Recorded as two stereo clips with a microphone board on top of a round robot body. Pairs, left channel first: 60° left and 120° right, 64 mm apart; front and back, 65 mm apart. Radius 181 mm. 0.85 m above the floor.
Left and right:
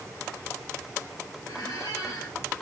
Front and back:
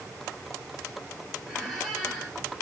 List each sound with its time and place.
1.5 s a squeak: 85° left, 3 m